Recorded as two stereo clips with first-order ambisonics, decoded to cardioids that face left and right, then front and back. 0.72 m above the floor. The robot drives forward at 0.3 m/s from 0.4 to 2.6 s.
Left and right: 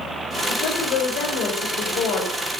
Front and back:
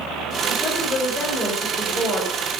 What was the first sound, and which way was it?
A woman speaking, 60° left.